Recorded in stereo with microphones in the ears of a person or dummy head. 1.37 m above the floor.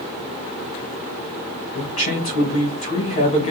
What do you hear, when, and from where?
1.8 s a man speaking: 35° left (ahead or behind), 1.6 m